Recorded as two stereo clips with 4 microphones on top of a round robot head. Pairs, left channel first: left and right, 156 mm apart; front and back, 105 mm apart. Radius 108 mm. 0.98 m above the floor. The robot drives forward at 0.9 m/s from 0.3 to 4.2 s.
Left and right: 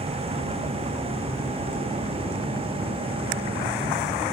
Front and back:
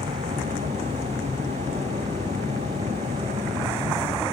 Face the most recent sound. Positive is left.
turn(degrees=-145)